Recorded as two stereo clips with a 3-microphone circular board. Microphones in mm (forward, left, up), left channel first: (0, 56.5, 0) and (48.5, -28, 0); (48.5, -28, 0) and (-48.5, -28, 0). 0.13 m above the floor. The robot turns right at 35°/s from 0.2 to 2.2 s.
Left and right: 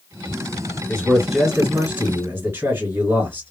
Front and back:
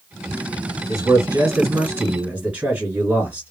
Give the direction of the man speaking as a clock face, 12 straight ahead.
5 o'clock.